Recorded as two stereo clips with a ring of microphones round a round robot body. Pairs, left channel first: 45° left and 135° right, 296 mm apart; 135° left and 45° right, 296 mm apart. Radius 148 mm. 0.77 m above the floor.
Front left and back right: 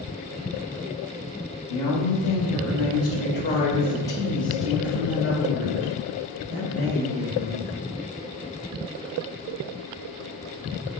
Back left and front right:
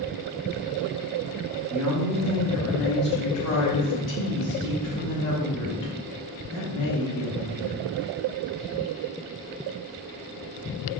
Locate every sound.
1.7 s a woman speaking: 40° left, 1.4 m; by 7.7 s 160° left, 3.5 m